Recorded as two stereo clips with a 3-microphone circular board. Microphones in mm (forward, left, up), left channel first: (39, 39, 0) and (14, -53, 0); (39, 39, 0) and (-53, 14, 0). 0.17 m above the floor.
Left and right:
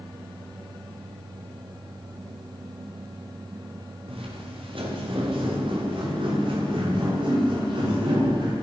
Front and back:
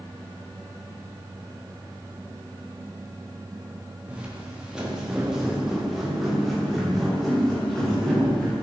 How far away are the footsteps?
About 9 m.